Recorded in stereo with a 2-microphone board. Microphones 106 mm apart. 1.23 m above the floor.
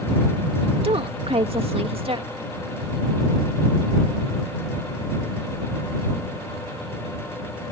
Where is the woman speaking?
60° right (ahead or behind).